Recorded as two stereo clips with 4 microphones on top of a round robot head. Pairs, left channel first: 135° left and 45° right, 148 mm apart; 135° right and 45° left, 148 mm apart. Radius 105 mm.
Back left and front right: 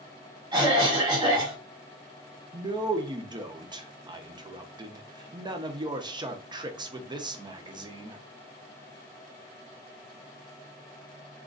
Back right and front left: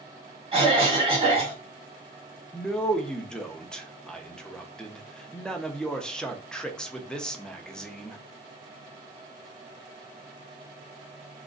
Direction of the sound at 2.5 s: 55° right.